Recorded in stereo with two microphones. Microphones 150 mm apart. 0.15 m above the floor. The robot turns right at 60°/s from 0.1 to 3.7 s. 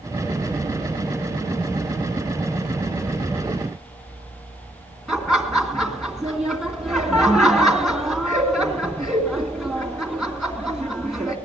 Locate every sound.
5.1 s laughter: centre (ahead or behind), 1.8 m